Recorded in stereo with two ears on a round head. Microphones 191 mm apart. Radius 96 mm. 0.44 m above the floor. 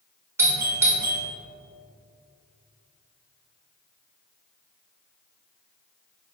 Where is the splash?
No splash in this recording.